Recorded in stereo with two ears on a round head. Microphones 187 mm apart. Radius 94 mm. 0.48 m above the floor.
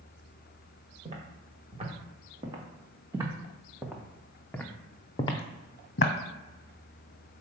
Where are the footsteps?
35° right (ahead or behind), 2.5 m; by 6.1 s 45° left (ahead or behind), 1.2 m.